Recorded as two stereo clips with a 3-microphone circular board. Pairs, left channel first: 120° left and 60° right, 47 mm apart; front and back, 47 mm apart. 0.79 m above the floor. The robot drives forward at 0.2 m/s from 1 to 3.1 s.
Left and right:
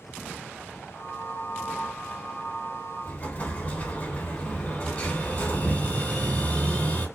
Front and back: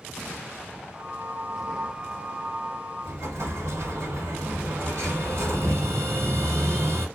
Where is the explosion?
175° left, 1.9 m.